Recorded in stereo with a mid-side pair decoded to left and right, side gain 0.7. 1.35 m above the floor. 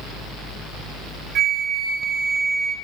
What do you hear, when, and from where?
0.0 s a fan: 15° left, 2 m
1.4 s a flute: 45° right, 1.2 m